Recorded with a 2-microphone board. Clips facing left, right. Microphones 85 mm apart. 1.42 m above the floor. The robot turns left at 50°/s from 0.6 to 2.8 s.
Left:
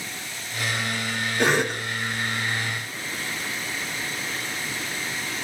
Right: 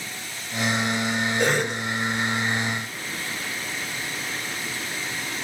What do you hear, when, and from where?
1.4 s a cough: 65° left (ahead or behind), 2 m; by 1.8 s 85° left, 2 m